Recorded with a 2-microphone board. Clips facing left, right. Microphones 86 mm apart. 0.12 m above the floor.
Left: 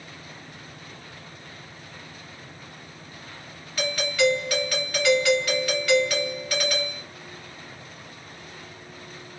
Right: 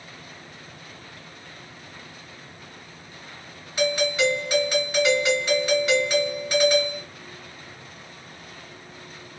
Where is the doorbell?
25° right (ahead or behind), 1.7 m.